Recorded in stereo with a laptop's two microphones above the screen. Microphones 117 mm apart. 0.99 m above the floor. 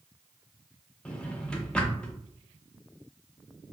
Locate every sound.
1.1 s a drawer: 10° left (ahead or behind), 0.6 m